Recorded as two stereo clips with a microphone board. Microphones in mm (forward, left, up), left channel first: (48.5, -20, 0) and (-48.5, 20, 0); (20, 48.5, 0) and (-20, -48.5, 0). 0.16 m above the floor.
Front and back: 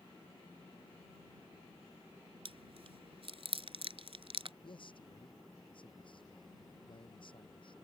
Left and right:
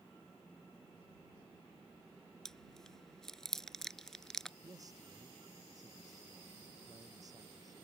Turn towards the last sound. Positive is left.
turn(degrees=-60)